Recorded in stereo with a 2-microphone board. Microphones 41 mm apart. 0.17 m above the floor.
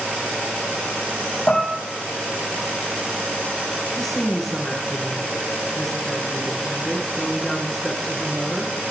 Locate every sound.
1.5 s dishes clattering: 40° left (ahead or behind), 4 m
4.0 s a woman speaking: 5° left (ahead or behind), 2.5 m